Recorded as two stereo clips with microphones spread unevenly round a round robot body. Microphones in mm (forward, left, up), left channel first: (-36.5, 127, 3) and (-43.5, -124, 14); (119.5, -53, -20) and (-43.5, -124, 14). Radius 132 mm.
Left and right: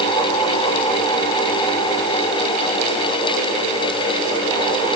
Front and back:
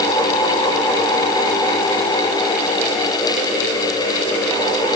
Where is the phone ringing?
I don't hear a phone ringing.